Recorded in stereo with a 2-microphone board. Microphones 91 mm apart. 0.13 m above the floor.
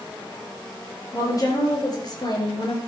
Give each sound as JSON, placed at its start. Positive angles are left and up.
{"t": 1.1, "sound": "a woman speaking", "side_deg": 40, "distance_m": 3.5}